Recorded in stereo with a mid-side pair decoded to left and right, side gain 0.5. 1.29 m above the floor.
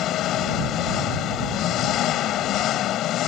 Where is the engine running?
65° left.